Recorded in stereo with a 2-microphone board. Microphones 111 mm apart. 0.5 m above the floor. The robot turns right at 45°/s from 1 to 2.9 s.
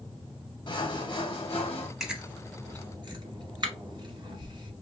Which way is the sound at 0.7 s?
60° left.